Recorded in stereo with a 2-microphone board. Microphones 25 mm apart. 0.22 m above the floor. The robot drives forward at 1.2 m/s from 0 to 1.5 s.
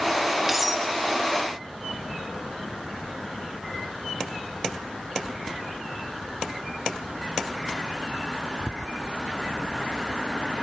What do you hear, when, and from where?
0.5 s cutlery clinking: 10° right (ahead or behind), 0.7 m; by 0.8 s 5° right (ahead or behind), 0.9 m